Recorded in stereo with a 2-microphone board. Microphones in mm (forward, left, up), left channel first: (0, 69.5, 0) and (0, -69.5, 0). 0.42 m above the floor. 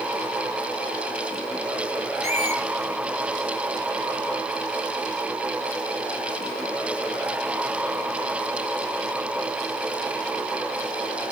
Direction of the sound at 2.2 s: 55° left (ahead or behind).